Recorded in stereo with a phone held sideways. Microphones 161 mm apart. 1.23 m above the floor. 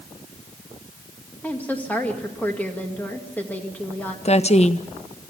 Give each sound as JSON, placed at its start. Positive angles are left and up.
{"t": 1.4, "sound": "a woman speaking", "side_deg": 10, "distance_m": 2.0}
{"t": 4.2, "sound": "a woman speaking", "side_deg": 40, "distance_m": 0.8}